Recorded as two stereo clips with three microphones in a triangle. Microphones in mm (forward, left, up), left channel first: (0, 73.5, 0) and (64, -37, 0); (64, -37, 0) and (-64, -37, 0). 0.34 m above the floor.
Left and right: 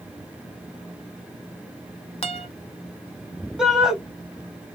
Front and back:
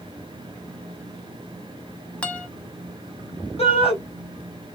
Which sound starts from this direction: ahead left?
A shout, at 3.6 s.